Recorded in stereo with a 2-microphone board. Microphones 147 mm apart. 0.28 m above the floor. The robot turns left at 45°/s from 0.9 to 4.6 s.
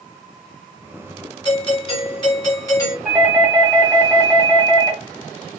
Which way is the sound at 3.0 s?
5° right (ahead or behind).